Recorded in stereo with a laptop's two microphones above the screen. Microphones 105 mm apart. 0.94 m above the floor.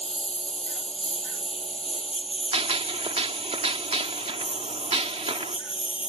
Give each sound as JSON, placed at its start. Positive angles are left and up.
{"t": 0.0, "sound": "a lawn mower", "side_deg": 80}
{"t": 2.5, "sound": "a gunshot", "side_deg": -70}